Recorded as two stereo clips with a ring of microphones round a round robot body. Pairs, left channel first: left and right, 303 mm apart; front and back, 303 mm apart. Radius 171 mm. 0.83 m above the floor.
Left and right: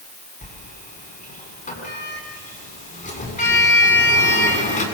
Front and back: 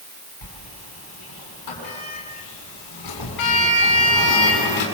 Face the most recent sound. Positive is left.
turn(degrees=25)